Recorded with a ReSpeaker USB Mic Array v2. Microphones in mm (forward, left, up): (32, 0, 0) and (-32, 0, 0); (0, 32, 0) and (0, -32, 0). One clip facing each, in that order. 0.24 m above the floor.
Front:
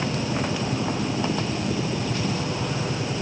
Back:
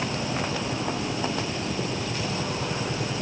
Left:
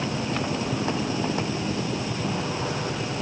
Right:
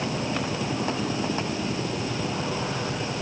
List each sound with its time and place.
Only background noise.